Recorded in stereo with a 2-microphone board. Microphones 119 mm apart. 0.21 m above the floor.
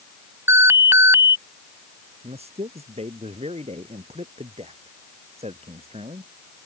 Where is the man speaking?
60° right (ahead or behind).